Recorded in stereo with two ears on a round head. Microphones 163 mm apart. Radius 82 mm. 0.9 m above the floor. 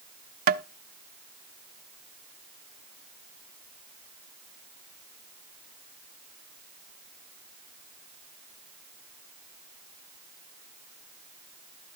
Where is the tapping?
55° right (ahead or behind), 0.5 m.